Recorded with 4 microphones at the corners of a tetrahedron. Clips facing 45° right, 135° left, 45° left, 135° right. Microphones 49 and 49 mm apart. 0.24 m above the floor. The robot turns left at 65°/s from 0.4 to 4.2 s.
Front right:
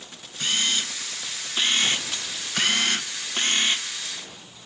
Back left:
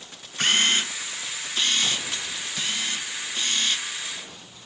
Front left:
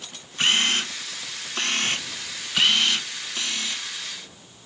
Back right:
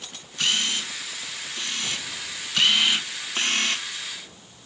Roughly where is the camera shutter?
Left.